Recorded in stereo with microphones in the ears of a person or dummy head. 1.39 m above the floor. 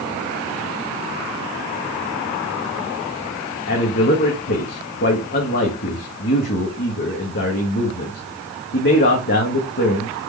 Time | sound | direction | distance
3.7 | a man speaking | 50° left (ahead or behind) | 2.0 m